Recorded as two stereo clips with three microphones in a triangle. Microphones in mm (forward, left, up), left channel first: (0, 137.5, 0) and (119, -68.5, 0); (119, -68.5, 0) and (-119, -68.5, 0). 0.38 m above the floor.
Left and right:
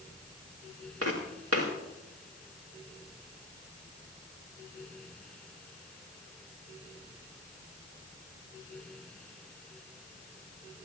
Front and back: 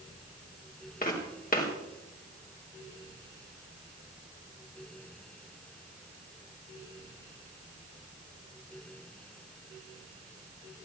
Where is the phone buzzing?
No phone buzzing in this recording.